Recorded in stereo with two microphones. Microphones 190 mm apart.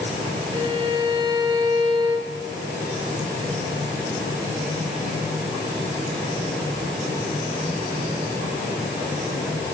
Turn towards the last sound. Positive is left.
turn(degrees=-25)  # may be behind; listen again after turning